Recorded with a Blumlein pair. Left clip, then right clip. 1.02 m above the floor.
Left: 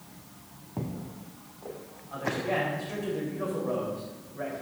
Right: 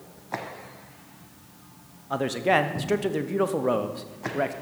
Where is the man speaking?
50° right, 0.9 m.